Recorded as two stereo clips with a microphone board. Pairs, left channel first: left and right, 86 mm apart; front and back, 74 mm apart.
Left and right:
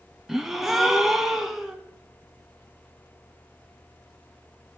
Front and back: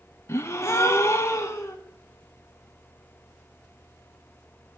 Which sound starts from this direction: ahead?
A gasp, at 0.3 s.